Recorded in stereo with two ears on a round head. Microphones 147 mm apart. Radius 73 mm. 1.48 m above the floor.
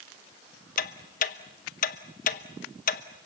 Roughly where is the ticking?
Left.